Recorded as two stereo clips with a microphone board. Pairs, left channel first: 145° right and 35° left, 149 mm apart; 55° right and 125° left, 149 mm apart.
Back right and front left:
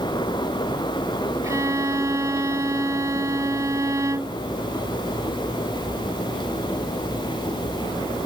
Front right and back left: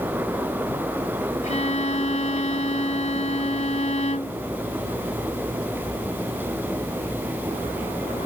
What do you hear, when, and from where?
1.4 s a violin: 30° right